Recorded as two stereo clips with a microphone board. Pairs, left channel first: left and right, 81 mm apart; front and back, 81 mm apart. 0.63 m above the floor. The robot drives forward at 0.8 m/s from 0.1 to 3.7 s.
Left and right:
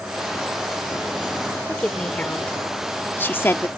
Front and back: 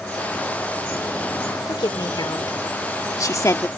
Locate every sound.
1.7 s a woman speaking: 15° left; by 3.7 s 45° left